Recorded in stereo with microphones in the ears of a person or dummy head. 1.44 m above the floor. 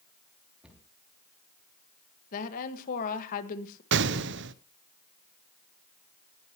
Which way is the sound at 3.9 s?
60° right (ahead or behind).